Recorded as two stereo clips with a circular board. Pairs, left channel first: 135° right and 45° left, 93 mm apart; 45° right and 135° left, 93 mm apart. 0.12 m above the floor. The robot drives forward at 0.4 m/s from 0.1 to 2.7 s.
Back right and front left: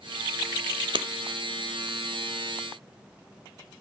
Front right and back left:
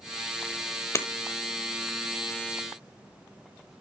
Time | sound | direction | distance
0.9 | breaking glass | 15° left | 0.9 m